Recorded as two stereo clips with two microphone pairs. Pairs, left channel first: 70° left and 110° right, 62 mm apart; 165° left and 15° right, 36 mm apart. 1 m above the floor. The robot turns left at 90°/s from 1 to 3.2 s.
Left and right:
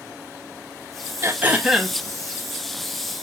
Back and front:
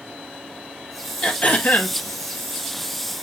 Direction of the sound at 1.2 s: 145° right.